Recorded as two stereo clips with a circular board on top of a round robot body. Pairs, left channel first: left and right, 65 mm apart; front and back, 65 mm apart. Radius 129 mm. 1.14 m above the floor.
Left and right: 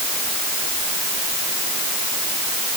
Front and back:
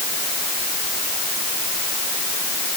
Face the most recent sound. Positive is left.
No sound to turn to.